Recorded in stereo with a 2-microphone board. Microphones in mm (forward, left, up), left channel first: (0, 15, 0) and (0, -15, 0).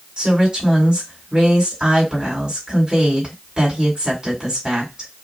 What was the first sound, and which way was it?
A woman speaking, 30° right (ahead or behind).